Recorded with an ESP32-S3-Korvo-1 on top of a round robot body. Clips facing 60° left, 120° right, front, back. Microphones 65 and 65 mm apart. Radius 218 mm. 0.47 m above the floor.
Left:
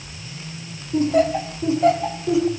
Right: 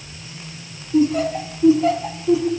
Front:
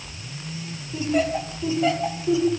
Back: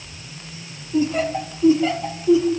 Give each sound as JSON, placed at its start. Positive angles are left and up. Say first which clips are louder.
{"t": 0.9, "sound": "laughter", "louder": "even, back 2 dB", "azimuth_deg": 90, "distance_m": 6.0}